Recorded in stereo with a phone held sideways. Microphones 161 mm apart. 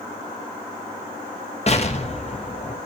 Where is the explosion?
40° left (ahead or behind), 1.2 m.